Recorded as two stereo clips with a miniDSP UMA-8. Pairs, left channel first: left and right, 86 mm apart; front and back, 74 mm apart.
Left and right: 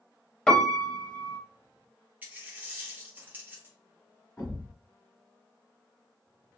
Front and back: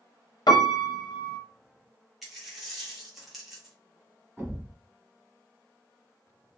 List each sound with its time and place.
0.5 s a piano: 10° left, 0.6 m
2.2 s a dropped coin: 95° right, 1.0 m
4.4 s a thud: 120° left, 1.7 m